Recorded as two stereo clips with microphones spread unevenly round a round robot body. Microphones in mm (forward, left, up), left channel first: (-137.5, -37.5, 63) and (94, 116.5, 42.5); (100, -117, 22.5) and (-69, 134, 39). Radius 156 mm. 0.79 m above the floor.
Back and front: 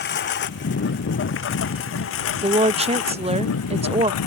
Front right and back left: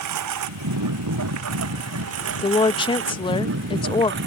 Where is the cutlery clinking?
No cutlery clinking in this recording.